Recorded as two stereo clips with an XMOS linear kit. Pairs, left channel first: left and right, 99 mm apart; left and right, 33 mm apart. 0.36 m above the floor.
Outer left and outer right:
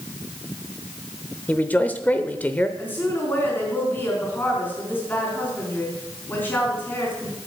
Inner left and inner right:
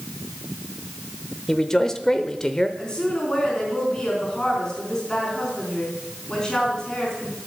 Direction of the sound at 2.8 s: 20° left (ahead or behind).